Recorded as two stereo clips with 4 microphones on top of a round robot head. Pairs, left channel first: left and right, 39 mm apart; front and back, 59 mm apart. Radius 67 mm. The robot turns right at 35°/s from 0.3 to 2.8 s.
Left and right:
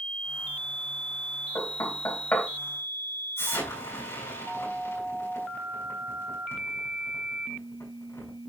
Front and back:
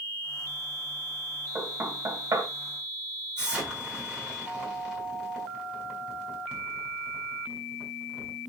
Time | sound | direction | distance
1.6 | knocking | 110° left | 3.5 m
3.4 | an explosion | 100° left | 6.5 m